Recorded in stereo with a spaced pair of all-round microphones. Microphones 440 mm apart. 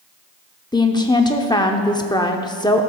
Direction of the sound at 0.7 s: 10° left (ahead or behind).